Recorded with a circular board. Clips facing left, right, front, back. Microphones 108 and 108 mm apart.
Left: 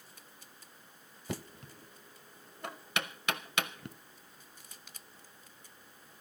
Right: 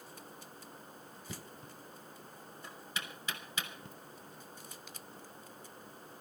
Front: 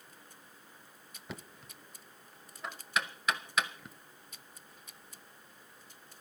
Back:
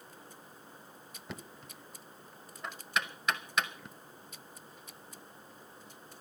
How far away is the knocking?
About 0.8 m.